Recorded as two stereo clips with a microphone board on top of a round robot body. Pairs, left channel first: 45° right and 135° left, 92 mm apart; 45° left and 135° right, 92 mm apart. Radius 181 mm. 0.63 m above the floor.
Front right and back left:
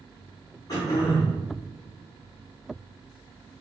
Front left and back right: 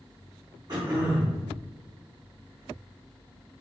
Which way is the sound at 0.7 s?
90° right.